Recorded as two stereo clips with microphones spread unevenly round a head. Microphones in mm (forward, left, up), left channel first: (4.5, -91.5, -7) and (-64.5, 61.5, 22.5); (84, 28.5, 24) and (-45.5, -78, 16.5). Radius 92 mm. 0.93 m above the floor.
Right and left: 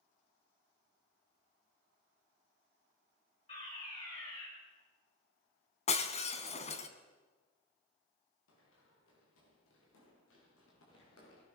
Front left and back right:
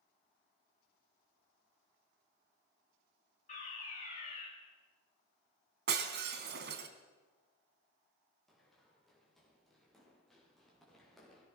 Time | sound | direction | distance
3.5 | a fire alarm | 10° right | 8 m
5.9 | breaking glass | 120° right | 2 m
8.5 | running footsteps | 50° right | 8 m